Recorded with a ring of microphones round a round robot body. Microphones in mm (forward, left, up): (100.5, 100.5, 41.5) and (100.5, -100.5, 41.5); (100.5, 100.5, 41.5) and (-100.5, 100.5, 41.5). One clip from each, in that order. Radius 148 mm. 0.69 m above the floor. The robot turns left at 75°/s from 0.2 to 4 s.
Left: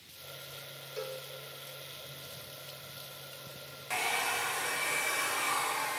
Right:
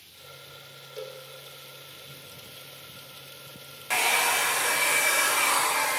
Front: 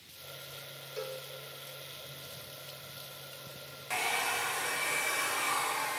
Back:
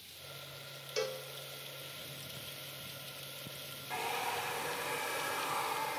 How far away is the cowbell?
About 1.1 m.